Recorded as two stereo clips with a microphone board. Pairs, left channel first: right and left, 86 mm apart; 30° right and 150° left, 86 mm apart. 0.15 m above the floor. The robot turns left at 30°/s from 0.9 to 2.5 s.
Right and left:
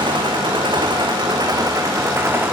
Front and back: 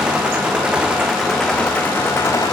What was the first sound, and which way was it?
An engine running, 70° left.